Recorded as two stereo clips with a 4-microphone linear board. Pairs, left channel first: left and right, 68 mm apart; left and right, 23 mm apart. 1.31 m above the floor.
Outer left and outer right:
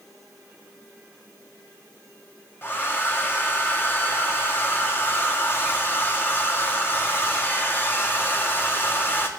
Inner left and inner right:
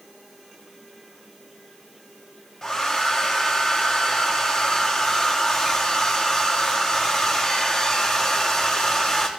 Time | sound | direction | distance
2.6 | a hair dryer | 30° left (ahead or behind) | 1.2 m